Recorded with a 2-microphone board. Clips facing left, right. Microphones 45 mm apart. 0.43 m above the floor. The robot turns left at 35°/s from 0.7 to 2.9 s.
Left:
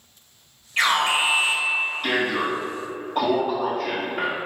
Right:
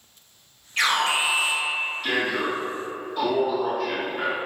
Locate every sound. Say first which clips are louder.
0.8 s an alarm: left 2 dB; 155° left, 1.9 m; by 4.4 s 80° left, 1.9 m